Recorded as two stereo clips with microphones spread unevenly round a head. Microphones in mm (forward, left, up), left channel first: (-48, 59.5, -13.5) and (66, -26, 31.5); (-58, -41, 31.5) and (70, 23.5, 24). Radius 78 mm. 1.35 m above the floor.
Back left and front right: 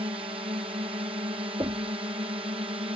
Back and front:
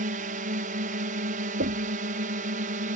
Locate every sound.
0.0 s a drone: 25° left
1.6 s knocking: 30° left